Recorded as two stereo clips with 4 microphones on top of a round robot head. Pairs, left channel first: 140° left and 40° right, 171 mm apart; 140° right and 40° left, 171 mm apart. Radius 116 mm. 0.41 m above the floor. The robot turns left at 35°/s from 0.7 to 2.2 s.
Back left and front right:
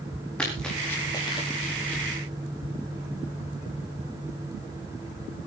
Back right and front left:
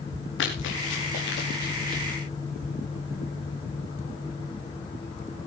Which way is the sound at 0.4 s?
140° right.